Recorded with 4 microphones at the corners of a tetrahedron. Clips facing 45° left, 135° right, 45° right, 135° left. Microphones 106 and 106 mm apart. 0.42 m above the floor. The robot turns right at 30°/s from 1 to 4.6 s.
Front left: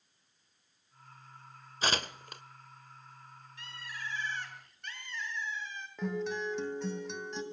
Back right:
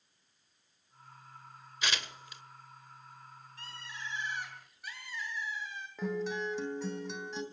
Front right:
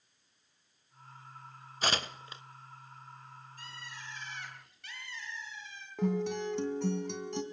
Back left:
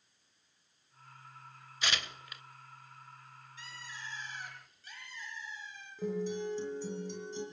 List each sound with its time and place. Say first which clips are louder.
1.8 s tearing paper: front left 4 dB, front right 4 dB; 5° right, 0.7 m; by 2.4 s 15° left, 0.7 m
3.6 s a bird: front left 1 dB, back left 1 dB; 80° right, 6 m; by 5.9 s 50° right, 6 m
6.0 s a guitar: even, front right 3 dB; 45° right, 3 m